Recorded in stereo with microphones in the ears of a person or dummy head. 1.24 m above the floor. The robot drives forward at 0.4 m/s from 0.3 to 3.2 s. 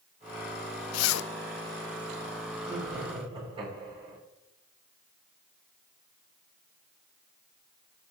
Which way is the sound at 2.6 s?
30° right (ahead or behind).